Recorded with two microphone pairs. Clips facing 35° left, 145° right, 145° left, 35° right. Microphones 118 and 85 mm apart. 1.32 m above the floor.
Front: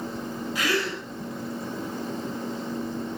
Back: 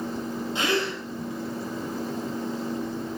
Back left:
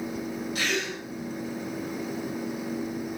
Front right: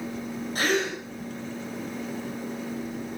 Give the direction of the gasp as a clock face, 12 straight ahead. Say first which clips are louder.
Back 1 dB, front right 7 dB; 3 o'clock.